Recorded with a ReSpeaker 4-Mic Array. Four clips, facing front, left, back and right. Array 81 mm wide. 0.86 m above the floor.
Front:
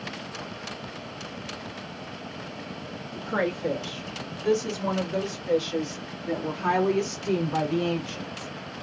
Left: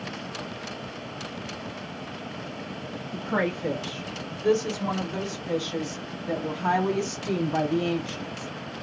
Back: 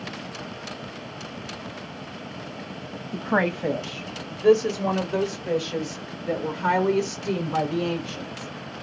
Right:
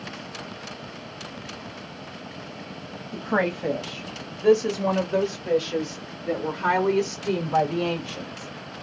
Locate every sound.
3.1 s a woman speaking: 155° right, 0.9 m; by 8.5 s 90° right, 3 m